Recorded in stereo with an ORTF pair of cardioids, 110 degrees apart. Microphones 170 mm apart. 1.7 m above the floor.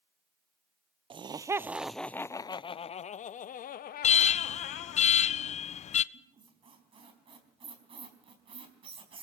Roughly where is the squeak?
Ahead right.